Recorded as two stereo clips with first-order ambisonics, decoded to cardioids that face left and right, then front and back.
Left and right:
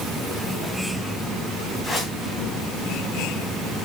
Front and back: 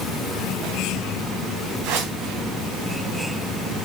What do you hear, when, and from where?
1.8 s a whoosh: 165° left, 2.5 m